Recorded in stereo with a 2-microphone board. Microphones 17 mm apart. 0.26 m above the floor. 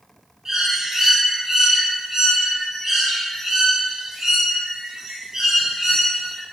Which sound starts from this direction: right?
A bird, at 0.5 s.